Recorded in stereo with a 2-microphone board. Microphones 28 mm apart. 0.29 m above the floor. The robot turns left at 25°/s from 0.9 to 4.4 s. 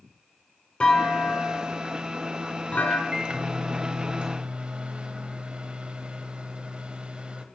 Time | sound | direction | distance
0.8 | a clunk | 30° left (ahead or behind) | 2 m
3.1 | a microwave | 55° right | 1.1 m